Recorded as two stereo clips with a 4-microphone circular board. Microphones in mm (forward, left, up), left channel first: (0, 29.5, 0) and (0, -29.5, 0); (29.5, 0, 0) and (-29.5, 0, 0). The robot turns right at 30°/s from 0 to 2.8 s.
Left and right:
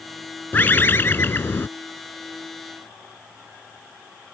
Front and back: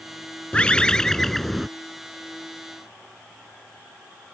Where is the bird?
55° left; by 1.7 s 90° left.